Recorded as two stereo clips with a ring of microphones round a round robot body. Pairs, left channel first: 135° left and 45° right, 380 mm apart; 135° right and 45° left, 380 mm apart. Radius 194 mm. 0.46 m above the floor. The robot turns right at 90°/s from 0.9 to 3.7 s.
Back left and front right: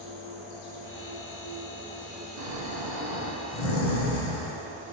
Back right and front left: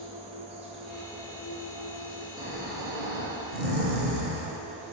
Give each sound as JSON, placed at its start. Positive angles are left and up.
{"t": 0.0, "sound": "an insect", "azimuth_deg": 120, "distance_m": 0.9}
{"t": 2.4, "sound": "snoring", "azimuth_deg": -35, "distance_m": 1.3}